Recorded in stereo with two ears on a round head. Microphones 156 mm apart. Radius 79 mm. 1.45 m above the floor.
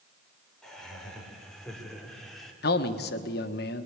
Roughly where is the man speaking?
Left.